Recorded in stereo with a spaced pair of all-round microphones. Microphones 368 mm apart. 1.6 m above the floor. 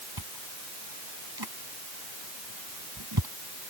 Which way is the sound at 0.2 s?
80° right.